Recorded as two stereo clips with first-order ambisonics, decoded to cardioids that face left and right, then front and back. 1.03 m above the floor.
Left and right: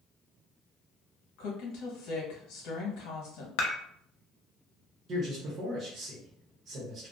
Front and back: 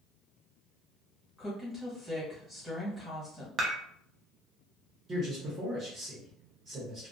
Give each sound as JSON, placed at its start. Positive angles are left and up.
{"t": 1.4, "sound": "a woman speaking", "azimuth_deg": 85, "distance_m": 1.1}
{"t": 3.6, "sound": "dishes clattering", "azimuth_deg": 115, "distance_m": 0.6}
{"t": 5.1, "sound": "a man speaking", "azimuth_deg": -125, "distance_m": 1.0}